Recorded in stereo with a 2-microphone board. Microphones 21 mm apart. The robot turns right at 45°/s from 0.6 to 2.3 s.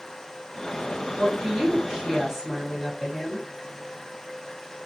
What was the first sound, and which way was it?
A woman speaking, 65° right.